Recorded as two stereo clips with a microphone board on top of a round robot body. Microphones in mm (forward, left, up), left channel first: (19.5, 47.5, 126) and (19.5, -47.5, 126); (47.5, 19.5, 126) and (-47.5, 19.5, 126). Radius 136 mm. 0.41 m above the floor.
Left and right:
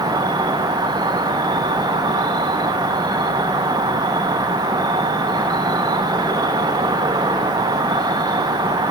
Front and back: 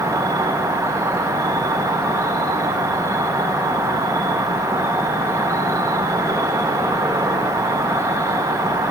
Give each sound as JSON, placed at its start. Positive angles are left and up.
{"t": 0.0, "sound": "an insect", "azimuth_deg": -125, "distance_m": 0.8}